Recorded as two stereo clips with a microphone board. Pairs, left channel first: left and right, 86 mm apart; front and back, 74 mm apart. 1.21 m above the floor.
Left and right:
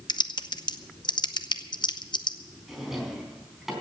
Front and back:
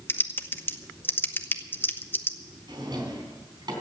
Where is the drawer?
175° right, 3.5 m.